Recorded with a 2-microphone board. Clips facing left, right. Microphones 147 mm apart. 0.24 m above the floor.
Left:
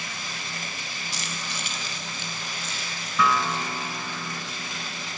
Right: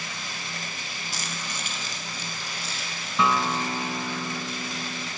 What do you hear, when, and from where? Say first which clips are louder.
1.1 s keys jangling: even; 50° right (ahead or behind), 1.3 m; by 3.1 s 30° right (ahead or behind), 3 m
3.2 s a guitar: even; 25° right (ahead or behind), 0.5 m